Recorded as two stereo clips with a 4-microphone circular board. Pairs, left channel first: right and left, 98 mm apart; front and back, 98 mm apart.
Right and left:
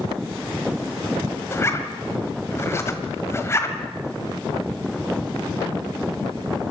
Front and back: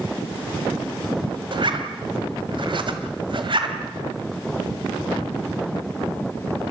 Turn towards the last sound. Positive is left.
turn(degrees=-150)